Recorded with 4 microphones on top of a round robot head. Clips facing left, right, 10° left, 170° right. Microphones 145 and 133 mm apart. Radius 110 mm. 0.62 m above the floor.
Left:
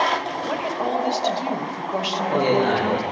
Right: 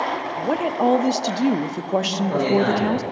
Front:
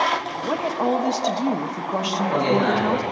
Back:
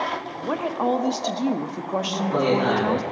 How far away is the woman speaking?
About 0.7 m.